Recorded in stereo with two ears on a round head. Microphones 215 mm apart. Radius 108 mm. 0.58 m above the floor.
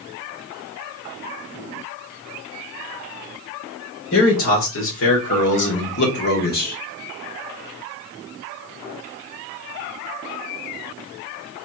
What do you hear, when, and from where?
4.1 s a man speaking: 60° left (ahead or behind), 2.5 m; by 6.8 s 35° left (ahead or behind), 1.4 m